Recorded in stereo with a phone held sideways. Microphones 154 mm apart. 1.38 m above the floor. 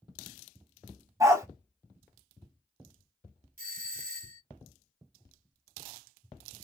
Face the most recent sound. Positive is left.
turn(degrees=-55)  # may be behind; listen again after turning